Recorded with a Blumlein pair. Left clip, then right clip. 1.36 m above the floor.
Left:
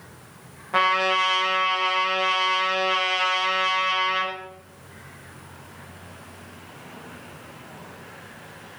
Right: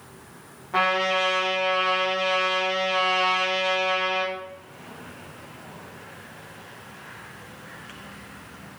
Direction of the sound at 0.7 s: 15° left.